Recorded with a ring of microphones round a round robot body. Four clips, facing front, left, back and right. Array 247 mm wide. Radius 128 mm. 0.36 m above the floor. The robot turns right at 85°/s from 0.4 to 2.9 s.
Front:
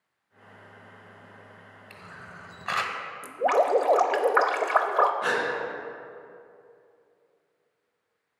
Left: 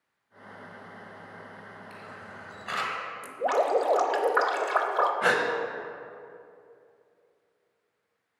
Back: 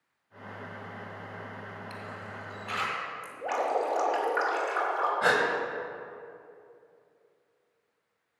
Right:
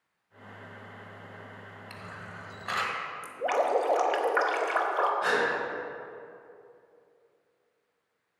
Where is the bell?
No bell in this recording.